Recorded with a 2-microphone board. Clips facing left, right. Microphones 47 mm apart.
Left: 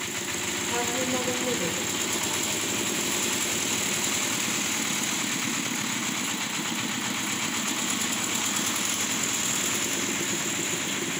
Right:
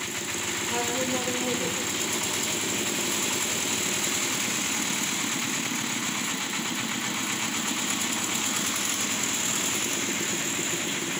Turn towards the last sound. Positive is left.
turn(degrees=20)  # may be behind; listen again after turning